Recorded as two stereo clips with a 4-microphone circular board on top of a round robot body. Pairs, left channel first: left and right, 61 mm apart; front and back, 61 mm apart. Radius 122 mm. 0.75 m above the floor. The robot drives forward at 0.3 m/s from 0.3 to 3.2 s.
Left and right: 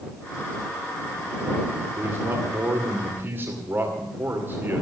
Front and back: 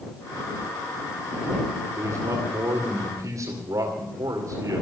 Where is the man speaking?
140° right, 2 m; by 4.8 s 150° right, 2.5 m.